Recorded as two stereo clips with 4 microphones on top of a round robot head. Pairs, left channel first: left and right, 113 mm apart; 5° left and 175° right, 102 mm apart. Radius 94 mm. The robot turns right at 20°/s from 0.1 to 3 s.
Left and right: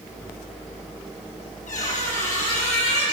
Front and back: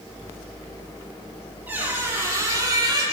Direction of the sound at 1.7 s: 110° left.